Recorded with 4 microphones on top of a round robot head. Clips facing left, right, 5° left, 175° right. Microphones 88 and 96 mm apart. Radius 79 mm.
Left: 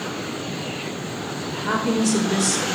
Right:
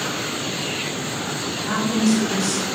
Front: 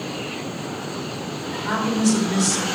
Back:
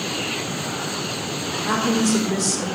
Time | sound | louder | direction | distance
1.5 | a woman speaking | left 2 dB, back 2 dB | 145° left | 3.5 m